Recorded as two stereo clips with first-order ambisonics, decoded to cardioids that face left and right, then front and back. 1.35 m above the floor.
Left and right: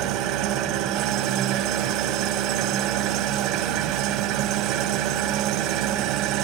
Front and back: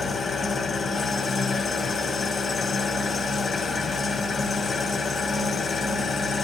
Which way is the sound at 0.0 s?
65° right.